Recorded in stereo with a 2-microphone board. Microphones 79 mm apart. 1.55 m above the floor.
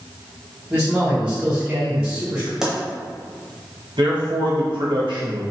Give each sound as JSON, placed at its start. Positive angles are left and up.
{"t": 0.7, "sound": "a man speaking", "side_deg": -15, "distance_m": 1.3}
{"t": 2.6, "sound": "a pop", "side_deg": -5, "distance_m": 0.7}
{"t": 4.0, "sound": "a man speaking", "side_deg": -80, "distance_m": 0.9}